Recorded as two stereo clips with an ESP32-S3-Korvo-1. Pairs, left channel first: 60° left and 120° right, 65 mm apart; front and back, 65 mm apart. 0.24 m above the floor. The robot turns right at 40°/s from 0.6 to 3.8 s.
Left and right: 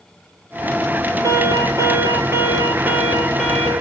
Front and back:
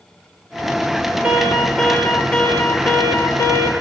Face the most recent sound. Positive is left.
turn(degrees=-10)